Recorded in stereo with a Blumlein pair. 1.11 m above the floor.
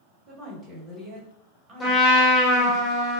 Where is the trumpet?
15° left, 1.0 m.